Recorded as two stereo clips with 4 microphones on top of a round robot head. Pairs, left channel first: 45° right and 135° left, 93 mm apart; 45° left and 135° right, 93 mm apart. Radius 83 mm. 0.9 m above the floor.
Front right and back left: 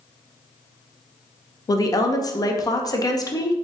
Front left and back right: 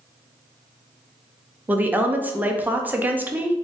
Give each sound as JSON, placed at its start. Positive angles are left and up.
{"t": 1.7, "sound": "a woman speaking", "azimuth_deg": -70, "distance_m": 0.7}